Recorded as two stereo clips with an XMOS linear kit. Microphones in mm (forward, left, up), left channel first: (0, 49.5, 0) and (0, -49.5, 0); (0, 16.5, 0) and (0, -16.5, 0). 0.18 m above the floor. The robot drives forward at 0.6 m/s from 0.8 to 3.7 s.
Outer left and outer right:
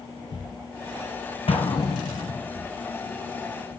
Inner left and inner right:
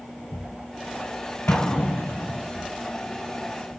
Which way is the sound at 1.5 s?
75° left (ahead or behind).